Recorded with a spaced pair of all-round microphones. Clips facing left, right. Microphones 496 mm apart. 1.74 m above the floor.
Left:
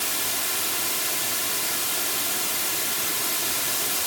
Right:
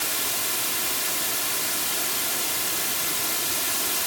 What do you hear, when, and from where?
Only background noise.